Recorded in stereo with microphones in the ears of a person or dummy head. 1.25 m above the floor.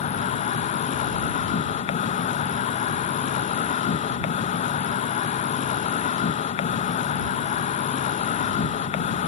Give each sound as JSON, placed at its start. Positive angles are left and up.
{"t": 0.0, "sound": "an insect", "side_deg": 35}